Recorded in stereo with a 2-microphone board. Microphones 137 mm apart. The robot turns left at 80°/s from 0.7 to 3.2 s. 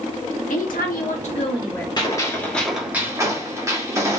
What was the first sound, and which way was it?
A woman speaking, 100° left.